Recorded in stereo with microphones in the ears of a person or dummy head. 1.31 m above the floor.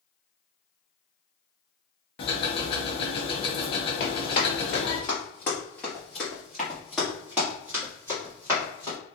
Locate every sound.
2.2 s ticking: 30° left (ahead or behind), 0.6 m
4.0 s running footsteps: 30° left (ahead or behind), 1.5 m; by 9.0 s 15° right (ahead or behind), 2.5 m